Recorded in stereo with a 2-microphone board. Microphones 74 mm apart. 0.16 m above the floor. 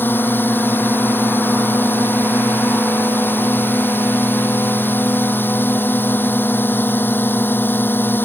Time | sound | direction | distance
0.0 | a drone | 30° left (ahead or behind) | ?